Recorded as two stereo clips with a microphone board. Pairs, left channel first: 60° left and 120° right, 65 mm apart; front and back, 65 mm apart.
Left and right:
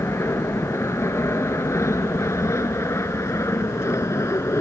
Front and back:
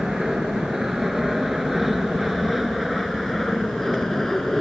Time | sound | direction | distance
0.0 | an aircraft | 100° left | ?